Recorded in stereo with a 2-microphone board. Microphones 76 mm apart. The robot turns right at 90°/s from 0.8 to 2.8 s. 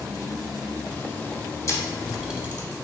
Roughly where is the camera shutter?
Left.